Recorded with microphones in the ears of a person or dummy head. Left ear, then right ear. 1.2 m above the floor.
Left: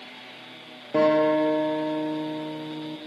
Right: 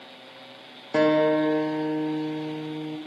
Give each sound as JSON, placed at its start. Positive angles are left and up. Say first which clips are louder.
{"t": 0.9, "sound": "a guitar", "louder": "even", "side_deg": -30, "distance_m": 0.6}